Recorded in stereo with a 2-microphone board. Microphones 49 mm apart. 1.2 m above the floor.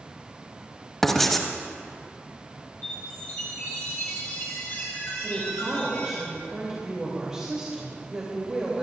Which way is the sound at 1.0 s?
5° left (ahead or behind).